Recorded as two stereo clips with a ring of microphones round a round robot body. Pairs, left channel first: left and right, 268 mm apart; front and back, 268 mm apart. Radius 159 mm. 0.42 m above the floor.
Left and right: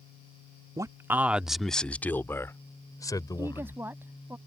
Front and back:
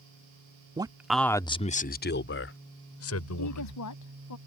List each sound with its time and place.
0.8 s a man speaking: 145° right; by 3.8 s 15° left
3.4 s a woman speaking: 10° right